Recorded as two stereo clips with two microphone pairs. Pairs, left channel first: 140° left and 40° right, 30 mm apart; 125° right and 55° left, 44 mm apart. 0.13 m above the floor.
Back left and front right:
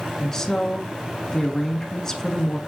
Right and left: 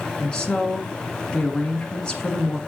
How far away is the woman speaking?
About 1.4 m.